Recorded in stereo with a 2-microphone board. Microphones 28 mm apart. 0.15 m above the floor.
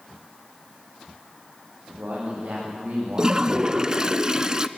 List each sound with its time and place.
1.9 s a man speaking: 60° right (ahead or behind), 8 m; by 4.1 s 70° right (ahead or behind), 8 m
3.2 s a toilet flushing: 25° right (ahead or behind), 0.6 m